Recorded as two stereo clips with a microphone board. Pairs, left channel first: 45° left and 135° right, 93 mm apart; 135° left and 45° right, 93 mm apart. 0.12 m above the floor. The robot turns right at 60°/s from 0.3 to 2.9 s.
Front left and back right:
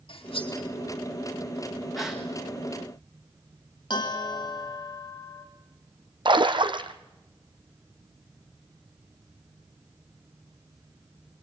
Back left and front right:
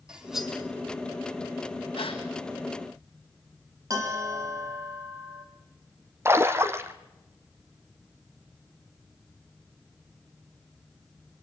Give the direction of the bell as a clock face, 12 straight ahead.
12 o'clock.